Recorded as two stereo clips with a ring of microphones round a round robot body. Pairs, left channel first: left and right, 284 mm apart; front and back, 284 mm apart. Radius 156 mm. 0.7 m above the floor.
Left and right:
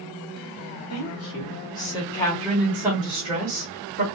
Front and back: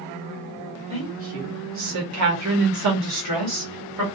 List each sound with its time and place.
0.9 s a woman speaking: 110° left, 1.0 m; by 4.0 s 150° right, 1.7 m